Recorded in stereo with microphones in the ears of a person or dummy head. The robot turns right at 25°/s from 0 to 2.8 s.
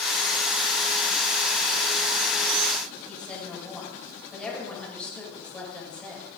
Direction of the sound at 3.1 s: 5° left (ahead or behind).